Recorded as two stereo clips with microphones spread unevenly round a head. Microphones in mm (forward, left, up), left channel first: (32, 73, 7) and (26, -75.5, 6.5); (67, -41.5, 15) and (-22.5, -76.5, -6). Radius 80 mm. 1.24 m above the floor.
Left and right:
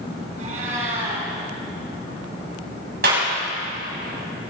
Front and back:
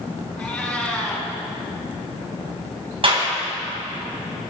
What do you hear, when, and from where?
0.4 s a cat meowing: 55° right, 5.5 m
3.0 s a clap: 130° right, 6.5 m